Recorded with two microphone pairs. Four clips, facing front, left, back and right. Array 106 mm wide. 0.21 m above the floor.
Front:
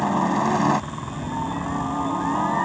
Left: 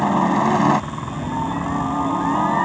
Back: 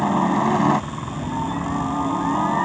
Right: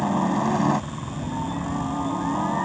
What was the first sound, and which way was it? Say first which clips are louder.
A helicopter: left 5 dB, back 2 dB; 95° left.